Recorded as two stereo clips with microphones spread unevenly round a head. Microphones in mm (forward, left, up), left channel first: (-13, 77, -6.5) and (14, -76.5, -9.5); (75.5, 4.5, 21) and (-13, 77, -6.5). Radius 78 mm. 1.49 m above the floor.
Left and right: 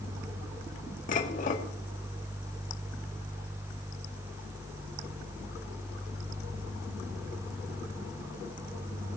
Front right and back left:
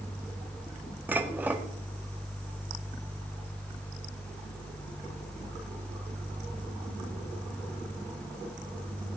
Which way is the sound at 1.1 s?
60° left.